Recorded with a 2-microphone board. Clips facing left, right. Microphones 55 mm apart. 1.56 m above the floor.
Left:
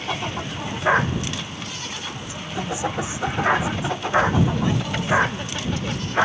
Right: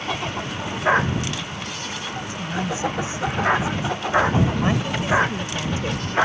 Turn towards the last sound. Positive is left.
turn(degrees=-20)  # may be behind; listen again after turning